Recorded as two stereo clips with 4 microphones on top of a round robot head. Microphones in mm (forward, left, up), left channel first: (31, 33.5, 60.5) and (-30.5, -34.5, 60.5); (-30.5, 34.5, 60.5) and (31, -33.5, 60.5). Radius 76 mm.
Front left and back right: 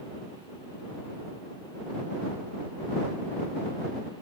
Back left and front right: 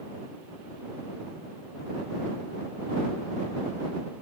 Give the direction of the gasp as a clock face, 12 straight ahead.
No gasp in this recording.